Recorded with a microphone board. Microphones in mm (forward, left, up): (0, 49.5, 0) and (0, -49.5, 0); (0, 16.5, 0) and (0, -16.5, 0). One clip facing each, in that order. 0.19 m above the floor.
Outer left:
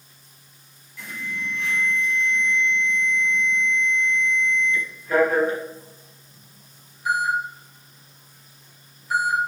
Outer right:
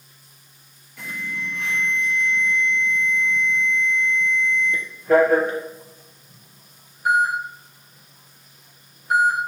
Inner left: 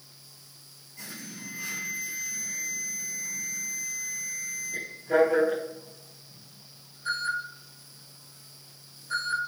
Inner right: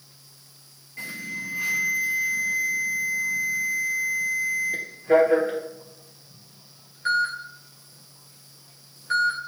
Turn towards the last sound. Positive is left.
turn(degrees=-70)  # may be behind; listen again after turning